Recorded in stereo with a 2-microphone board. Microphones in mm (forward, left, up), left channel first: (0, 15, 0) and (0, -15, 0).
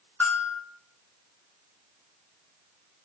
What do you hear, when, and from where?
0.2 s a bell: 70° left (ahead or behind), 0.9 m